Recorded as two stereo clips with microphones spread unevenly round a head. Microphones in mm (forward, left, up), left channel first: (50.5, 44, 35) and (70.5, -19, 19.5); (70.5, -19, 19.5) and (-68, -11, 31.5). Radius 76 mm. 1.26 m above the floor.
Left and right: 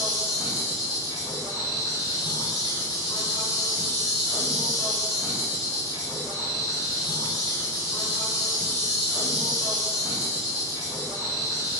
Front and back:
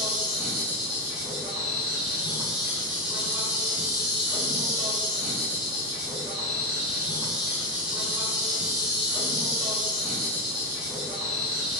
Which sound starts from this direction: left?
An insect, at 0.0 s.